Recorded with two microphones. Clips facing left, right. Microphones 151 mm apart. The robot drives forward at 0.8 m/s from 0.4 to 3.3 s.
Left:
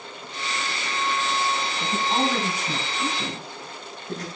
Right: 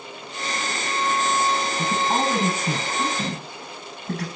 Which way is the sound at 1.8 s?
80° right.